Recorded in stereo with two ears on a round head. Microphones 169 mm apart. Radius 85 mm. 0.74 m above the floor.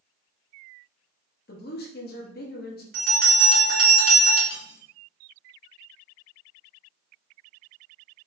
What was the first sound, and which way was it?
A woman speaking, 55° left (ahead or behind).